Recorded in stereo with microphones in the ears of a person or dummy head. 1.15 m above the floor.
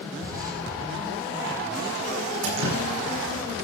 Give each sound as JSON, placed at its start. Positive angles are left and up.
{"t": 0.2, "sound": "an explosion", "side_deg": -45, "distance_m": 9.5}
{"t": 2.4, "sound": "dripping", "side_deg": -75, "distance_m": 8.5}